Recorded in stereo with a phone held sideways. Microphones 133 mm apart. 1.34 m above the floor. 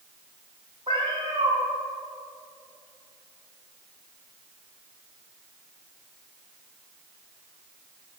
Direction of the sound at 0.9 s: 40° right (ahead or behind).